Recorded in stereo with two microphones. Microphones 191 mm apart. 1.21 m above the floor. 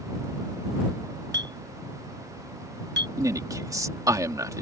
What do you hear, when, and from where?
1.3 s a clink: 60° right (ahead or behind)
3.2 s a man speaking: 15° right (ahead or behind)